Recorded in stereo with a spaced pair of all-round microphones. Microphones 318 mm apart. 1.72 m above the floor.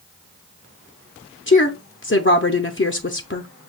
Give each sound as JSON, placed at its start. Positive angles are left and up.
{"t": 1.5, "sound": "a woman speaking", "side_deg": 40, "distance_m": 0.5}